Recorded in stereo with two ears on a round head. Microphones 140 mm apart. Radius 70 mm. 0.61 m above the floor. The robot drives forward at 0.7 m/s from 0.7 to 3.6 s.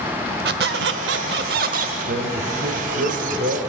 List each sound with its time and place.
0.5 s a squeak: 70° right (ahead or behind), 0.8 m; by 1.9 s 50° right (ahead or behind), 1.0 m
2.1 s a man speaking: 70° right (ahead or behind), 1.7 m; by 3.6 s 60° right (ahead or behind), 1.9 m